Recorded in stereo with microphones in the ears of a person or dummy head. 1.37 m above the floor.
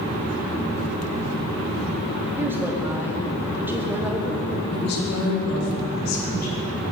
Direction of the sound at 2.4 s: 5° right (ahead or behind).